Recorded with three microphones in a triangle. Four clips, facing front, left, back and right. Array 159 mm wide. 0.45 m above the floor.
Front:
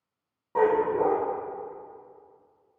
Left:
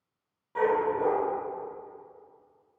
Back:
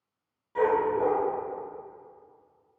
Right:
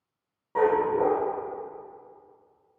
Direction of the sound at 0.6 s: 30° right.